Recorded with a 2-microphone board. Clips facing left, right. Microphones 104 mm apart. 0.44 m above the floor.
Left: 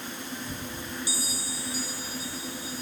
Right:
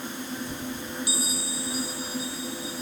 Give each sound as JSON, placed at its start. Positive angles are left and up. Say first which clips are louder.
{"t": 1.1, "sound": "a bell", "louder": "right 4 dB", "side_deg": -70}